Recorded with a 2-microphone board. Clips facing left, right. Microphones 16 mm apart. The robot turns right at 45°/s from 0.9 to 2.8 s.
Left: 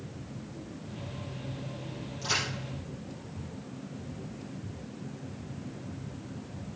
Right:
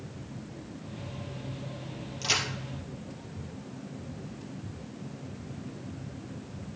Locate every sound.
2.2 s a crack: 35° right (ahead or behind), 3 m; by 2.4 s 25° right (ahead or behind), 3 m